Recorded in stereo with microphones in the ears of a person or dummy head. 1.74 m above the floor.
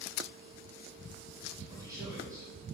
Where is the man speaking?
20° right (ahead or behind), 2.5 m.